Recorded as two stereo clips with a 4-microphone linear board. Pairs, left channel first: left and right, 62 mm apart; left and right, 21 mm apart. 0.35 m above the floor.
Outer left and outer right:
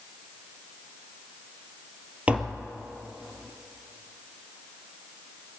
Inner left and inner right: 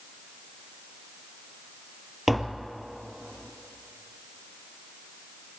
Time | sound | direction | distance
2.3 | tapping | 20° right (ahead or behind) | 2.5 m